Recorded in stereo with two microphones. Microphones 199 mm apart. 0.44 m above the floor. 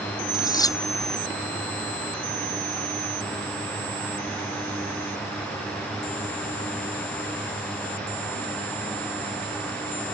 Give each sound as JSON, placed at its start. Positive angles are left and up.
{"t": 0.3, "sound": "cutlery clinking", "side_deg": 20}